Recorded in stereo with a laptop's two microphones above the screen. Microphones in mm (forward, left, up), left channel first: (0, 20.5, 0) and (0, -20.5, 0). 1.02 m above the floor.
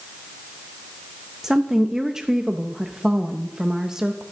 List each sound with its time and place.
1.4 s a woman speaking: 15° right (ahead or behind), 0.6 m